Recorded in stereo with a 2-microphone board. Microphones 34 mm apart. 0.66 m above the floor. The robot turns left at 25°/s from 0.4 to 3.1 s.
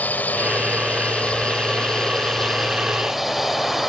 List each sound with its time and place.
0.0 s a drone: 60° left; by 3.9 s 10° right